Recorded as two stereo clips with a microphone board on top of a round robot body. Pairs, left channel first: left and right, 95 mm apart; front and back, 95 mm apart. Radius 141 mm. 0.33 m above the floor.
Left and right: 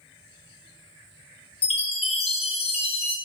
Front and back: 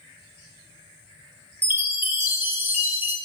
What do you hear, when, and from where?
1.6 s a chime: 110° left, 0.5 m